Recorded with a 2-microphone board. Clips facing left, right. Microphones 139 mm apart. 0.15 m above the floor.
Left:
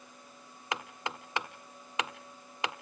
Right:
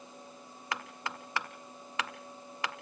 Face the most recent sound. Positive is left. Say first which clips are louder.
# left 2 dB
turn(degrees=20)  # may be behind; listen again after turning